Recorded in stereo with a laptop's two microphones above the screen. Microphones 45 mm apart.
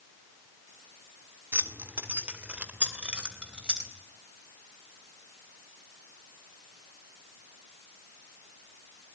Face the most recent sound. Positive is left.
turn(degrees=-20)  # may be behind; listen again after turning